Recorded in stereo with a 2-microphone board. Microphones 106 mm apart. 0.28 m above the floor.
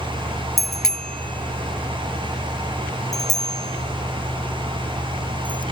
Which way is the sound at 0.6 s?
Centre (ahead or behind).